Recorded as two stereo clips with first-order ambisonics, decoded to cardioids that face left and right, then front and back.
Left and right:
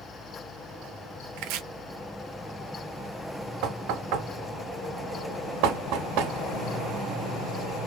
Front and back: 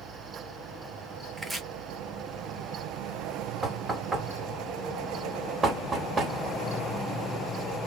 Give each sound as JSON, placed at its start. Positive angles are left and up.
{"t": 1.4, "sound": "chopping", "azimuth_deg": -100, "distance_m": 0.6}
{"t": 3.6, "sound": "knocking", "azimuth_deg": -110, "distance_m": 0.8}